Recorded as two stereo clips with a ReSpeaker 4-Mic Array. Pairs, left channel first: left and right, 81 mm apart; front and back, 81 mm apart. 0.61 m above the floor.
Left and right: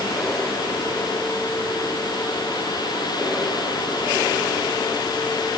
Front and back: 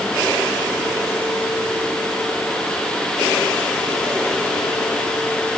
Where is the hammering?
No hammering in this recording.